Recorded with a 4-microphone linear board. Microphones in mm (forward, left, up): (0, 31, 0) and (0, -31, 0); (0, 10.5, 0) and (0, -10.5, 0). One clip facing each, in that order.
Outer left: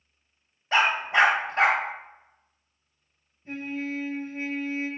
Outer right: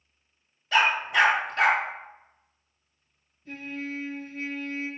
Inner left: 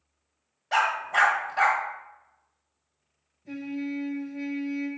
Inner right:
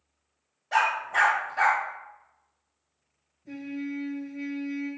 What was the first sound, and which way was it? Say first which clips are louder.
A dog barking: even, even; 30° left (ahead or behind).